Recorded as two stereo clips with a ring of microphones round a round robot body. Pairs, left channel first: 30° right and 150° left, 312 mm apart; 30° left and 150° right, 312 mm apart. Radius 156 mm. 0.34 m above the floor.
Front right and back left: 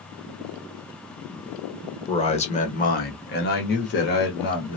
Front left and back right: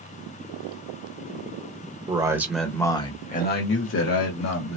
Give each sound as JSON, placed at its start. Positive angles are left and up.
{"t": 2.1, "sound": "a man speaking", "azimuth_deg": -90, "distance_m": 1.0}